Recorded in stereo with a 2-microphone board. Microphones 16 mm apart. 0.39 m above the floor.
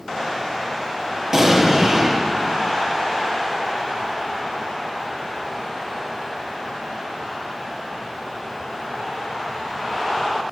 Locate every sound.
1.3 s an explosion: 30° right (ahead or behind), 4.5 m